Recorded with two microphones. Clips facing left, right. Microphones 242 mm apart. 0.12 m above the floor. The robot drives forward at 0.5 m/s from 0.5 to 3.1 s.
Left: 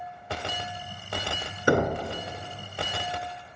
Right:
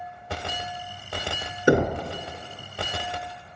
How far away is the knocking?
About 0.8 m.